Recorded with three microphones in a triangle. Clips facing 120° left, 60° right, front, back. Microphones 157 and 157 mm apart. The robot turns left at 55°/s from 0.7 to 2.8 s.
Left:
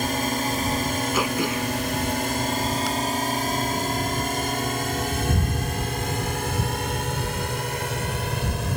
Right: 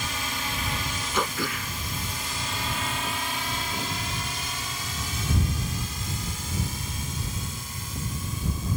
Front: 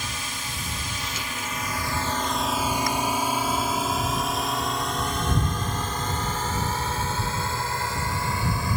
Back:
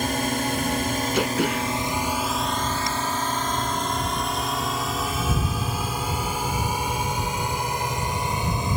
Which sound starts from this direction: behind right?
Throat clearing, at 1.1 s.